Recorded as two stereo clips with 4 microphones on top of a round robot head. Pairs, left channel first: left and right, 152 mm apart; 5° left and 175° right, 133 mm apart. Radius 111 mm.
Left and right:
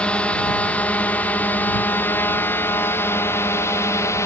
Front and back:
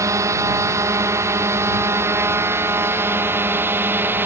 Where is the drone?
165° left; by 4.2 s 135° left.